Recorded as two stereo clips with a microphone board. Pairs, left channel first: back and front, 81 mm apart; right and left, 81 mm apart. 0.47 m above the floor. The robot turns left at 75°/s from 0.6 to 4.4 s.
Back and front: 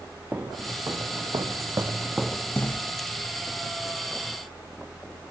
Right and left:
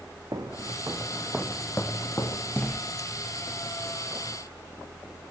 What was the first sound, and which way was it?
Footsteps, 65° left.